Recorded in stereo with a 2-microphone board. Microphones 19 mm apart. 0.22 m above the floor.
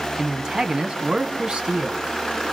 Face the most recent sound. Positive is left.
turn(degrees=-50)  # may be behind; listen again after turning